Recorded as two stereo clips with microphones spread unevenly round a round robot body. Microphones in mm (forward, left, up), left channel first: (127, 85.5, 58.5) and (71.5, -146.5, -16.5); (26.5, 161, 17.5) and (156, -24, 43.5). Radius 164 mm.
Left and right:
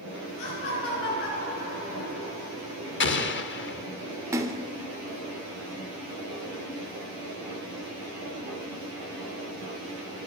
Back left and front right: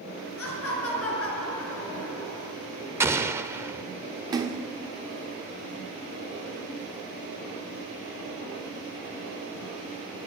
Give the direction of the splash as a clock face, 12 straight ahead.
4 o'clock.